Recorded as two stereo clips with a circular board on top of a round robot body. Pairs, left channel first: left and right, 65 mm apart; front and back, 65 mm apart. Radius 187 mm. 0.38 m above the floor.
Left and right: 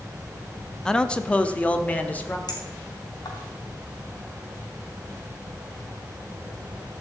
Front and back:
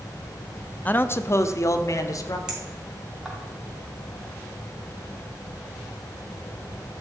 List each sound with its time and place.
0.8 s a man speaking: 20° left, 0.8 m; by 2.4 s 25° left, 1.8 m
2.5 s a clink: 100° left, 3 m